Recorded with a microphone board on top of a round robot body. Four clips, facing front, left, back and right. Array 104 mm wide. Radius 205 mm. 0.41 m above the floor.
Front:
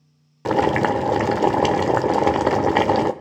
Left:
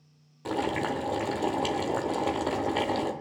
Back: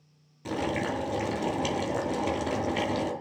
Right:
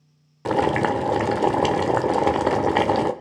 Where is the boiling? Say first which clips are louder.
Right 9 dB, front 11 dB; 30° right, 0.7 m.